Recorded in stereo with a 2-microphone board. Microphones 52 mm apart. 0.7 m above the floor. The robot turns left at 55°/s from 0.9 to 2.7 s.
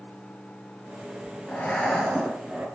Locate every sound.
1.5 s breathing: 30° left, 6 m; by 2.7 s 35° right, 6 m